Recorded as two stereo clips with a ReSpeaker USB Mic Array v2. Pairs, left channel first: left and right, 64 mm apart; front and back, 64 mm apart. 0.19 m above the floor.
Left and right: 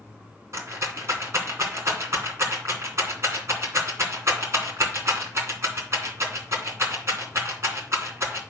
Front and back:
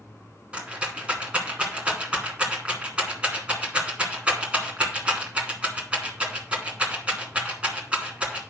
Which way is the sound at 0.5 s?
115° right.